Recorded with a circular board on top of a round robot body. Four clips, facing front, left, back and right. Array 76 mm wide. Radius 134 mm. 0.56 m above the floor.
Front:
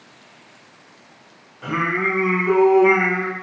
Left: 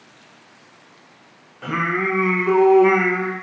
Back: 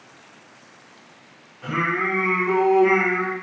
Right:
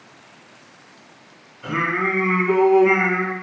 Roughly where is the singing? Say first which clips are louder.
Even, front 2 dB; ahead left.